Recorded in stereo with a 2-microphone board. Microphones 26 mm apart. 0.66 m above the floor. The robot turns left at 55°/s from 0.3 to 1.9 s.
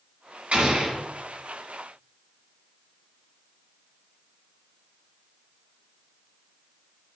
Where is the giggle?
I don't hear a giggle.